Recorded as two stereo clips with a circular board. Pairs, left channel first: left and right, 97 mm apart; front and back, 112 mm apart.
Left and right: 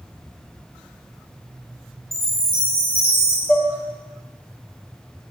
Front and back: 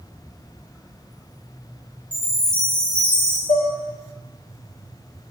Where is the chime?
80° left, 1.0 m.